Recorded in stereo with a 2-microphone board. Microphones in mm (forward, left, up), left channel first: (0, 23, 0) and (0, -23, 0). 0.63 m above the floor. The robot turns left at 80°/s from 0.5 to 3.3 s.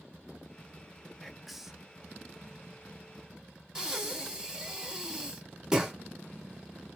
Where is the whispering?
5° left (ahead or behind), 0.7 m; by 1.9 s 15° right (ahead or behind), 0.7 m.